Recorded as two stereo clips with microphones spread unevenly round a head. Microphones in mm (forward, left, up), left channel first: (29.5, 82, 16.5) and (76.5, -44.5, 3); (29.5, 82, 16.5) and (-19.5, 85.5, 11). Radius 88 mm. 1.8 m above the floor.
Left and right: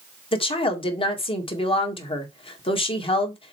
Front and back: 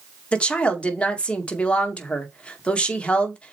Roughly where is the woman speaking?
Ahead left.